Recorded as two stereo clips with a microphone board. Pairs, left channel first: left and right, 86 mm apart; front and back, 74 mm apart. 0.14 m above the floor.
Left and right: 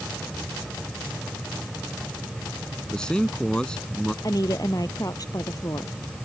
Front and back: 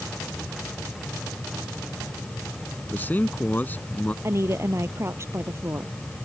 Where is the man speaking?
20° left.